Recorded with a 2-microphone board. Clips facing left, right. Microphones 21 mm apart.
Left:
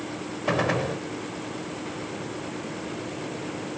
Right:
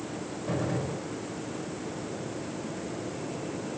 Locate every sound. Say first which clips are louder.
0.5 s a gunshot: left 7 dB; 65° left (ahead or behind), 1.2 m